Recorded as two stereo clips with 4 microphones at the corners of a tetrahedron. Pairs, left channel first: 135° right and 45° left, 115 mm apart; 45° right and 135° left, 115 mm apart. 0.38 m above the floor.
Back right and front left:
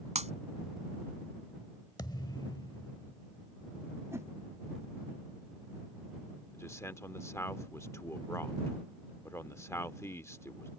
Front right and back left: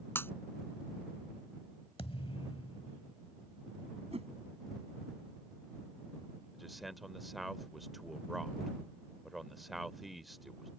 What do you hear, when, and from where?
0.1 s breaking glass: 25° left
2.0 s a thud: 80° right
4.1 s a whoosh: 110° left
6.5 s a man speaking: 135° right